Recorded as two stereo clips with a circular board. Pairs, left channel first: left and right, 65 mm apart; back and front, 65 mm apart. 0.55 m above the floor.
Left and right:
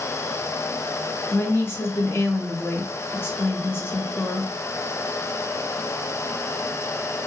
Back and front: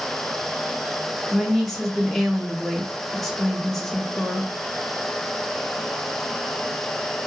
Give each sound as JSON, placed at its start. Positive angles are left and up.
{"t": 1.3, "sound": "a woman speaking", "azimuth_deg": 95, "distance_m": 0.9}